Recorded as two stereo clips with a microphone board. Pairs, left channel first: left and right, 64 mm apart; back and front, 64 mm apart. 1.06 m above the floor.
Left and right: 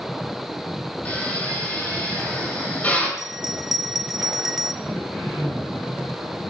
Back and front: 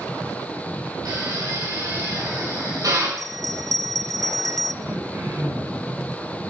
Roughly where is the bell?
Ahead.